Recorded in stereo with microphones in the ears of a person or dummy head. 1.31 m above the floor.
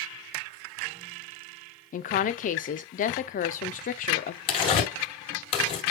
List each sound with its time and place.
1.9 s a woman speaking: 40° left (ahead or behind), 0.6 m
4.5 s tearing paper: 35° left (ahead or behind), 2 m